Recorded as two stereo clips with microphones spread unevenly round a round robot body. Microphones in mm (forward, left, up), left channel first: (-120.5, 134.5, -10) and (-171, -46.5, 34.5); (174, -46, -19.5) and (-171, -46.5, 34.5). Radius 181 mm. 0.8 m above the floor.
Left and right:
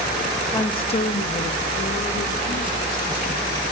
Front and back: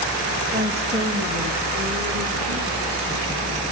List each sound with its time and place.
0.5 s a woman speaking: 100° left, 1.1 m; by 3.6 s 115° left, 4 m